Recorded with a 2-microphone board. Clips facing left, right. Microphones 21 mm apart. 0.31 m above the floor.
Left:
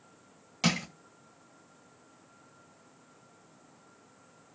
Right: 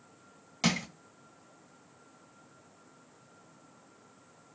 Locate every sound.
0.6 s crushing: 5° left (ahead or behind), 1.7 m